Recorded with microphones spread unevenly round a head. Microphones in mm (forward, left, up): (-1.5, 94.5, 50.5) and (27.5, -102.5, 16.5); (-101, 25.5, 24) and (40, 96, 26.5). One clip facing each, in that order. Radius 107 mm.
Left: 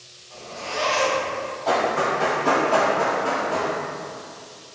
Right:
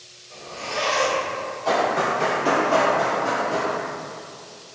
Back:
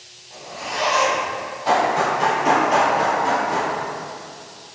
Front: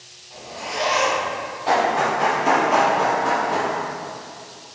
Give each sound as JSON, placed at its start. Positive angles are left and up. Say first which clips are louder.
{"t": 0.3, "sound": "a zipper", "louder": "right 1 dB, even", "azimuth_deg": -100, "distance_m": 1.0}
{"t": 1.6, "sound": "running footsteps", "louder": "even, back 1 dB", "azimuth_deg": -145, "distance_m": 1.6}